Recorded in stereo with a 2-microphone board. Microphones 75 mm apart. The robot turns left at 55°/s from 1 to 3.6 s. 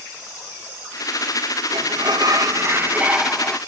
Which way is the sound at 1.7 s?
90° right.